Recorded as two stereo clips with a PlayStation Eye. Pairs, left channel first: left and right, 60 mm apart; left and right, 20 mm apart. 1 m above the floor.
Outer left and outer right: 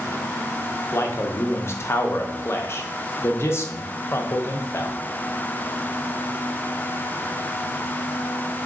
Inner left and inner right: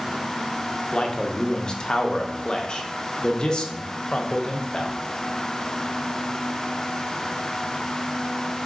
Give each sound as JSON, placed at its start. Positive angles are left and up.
{"t": 0.9, "sound": "a man speaking", "side_deg": 45, "distance_m": 0.6}